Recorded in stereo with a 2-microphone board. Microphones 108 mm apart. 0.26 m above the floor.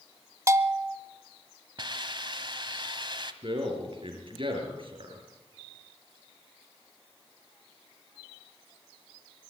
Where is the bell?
30° right (ahead or behind), 0.8 m.